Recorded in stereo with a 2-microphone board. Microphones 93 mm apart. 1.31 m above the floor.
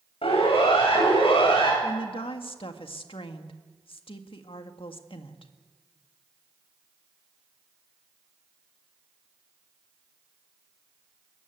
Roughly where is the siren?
Left.